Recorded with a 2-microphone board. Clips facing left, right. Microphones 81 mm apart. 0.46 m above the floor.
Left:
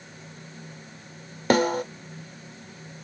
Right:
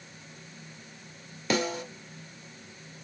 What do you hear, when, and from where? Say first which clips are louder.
1.5 s a snare drum: left 8 dB; 55° left (ahead or behind), 1.1 m